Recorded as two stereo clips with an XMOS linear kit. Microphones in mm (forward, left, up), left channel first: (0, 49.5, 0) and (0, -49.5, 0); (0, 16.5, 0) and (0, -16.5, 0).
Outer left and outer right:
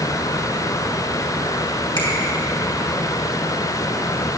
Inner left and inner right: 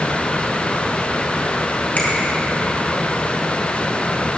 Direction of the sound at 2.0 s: 45° left (ahead or behind).